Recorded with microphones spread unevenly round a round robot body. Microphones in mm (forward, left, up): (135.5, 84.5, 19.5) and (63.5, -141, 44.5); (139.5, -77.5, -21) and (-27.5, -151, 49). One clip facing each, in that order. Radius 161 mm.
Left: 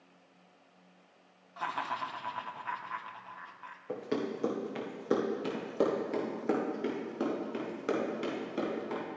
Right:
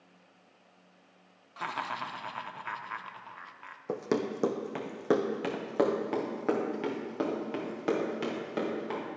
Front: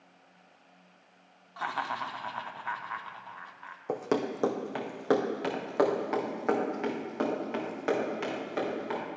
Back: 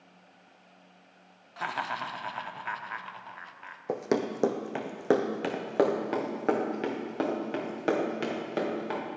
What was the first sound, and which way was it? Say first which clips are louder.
Laughter: even, even; 70° right.